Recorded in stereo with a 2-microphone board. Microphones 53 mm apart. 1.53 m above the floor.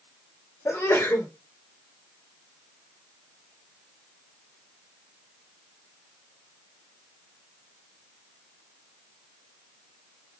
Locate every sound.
0.7 s a sneeze: 70° left (ahead or behind), 1.3 m